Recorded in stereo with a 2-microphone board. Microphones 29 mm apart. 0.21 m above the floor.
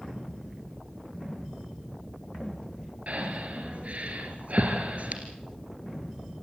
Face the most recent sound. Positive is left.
turn(degrees=-55)  # may be behind; listen again after turning